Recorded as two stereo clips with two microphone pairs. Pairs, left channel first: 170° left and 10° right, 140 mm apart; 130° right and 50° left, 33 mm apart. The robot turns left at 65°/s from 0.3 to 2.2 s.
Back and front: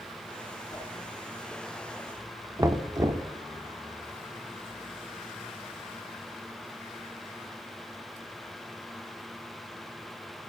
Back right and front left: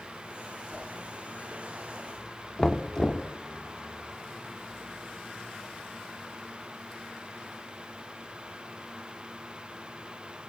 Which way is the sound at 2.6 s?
65° right.